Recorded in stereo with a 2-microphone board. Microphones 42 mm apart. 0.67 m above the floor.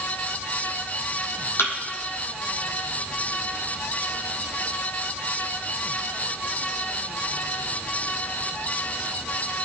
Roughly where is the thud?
Left.